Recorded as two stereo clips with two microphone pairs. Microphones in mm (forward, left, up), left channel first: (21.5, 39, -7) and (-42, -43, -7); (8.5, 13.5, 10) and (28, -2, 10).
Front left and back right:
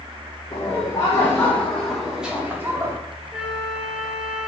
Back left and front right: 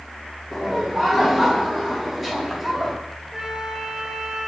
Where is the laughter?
35° left, 1.6 m; by 3.0 s 115° right, 1.4 m.